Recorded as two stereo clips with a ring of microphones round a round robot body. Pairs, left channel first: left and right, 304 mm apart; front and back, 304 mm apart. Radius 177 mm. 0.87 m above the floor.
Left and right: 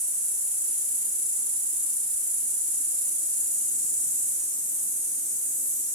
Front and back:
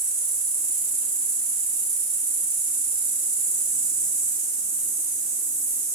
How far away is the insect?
About 1.4 m.